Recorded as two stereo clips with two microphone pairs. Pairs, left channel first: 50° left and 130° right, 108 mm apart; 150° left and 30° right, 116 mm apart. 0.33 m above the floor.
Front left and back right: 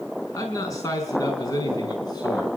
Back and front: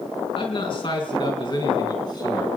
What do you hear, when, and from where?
0.3 s a man speaking: 110° left, 4.5 m; by 2.5 s 95° left, 3.5 m